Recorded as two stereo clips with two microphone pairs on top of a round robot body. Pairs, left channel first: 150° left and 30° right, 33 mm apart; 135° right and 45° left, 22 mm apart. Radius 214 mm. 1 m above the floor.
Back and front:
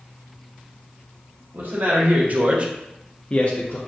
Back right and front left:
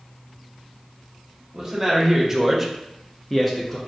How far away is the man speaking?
About 1.3 m.